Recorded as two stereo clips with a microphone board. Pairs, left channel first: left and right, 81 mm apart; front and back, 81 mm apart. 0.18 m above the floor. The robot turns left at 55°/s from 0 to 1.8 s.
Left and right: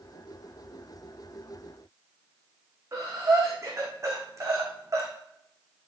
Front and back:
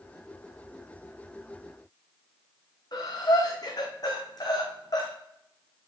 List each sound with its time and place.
2.9 s breathing: 40° right, 2.5 m